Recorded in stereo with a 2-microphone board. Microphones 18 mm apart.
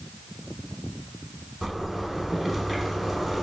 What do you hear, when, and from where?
1.6 s a zipper: 10° right (ahead or behind), 0.8 m